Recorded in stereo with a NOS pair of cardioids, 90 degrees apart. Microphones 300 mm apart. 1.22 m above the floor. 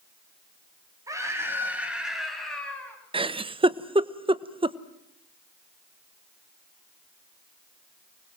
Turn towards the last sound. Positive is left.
turn(degrees=-15)